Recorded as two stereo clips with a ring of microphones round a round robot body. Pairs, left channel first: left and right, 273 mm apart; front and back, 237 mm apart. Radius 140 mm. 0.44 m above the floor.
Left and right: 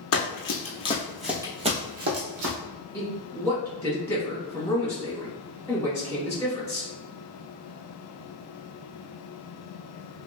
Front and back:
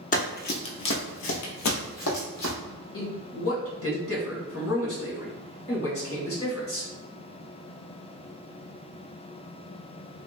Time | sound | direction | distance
0.1 | running footsteps | 55° left | 0.9 m
2.9 | a man speaking | 10° left | 1.8 m